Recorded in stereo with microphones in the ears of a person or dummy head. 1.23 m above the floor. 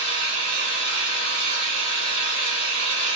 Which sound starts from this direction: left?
An engine running, at 0.0 s.